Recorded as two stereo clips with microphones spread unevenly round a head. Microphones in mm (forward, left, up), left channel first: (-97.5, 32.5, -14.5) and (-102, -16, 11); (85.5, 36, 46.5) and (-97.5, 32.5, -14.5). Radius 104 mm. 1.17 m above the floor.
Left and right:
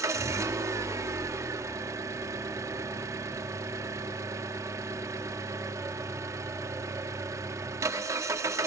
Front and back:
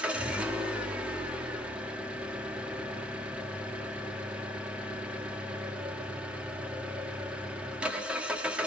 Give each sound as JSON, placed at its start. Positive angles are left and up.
{"t": 0.0, "sound": "an engine running", "azimuth_deg": -90, "distance_m": 1.6}